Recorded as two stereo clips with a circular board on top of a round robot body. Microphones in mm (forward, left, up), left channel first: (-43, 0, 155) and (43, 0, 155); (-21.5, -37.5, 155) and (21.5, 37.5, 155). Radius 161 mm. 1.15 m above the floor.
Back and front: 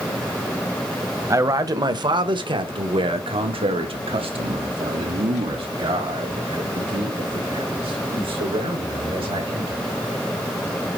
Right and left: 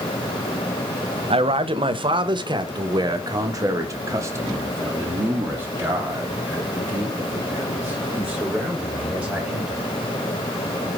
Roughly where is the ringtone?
No ringtone in this recording.